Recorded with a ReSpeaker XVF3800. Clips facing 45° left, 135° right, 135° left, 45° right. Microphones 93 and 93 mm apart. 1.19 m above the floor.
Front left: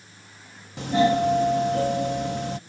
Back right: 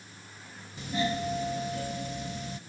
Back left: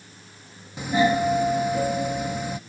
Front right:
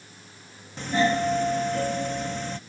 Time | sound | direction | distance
0.8 | a doorbell | 55° left | ?